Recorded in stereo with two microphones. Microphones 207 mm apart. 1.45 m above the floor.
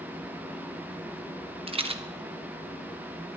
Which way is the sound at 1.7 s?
25° right (ahead or behind).